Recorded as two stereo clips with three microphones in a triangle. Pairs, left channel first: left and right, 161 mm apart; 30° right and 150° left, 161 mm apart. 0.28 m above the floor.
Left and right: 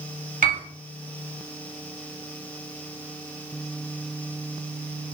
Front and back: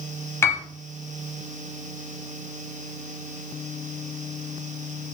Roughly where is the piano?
Right.